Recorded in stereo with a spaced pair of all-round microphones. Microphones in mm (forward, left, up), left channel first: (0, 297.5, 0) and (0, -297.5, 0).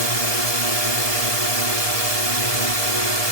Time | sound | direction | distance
0.0 | a drone | 75° right (ahead or behind) | ?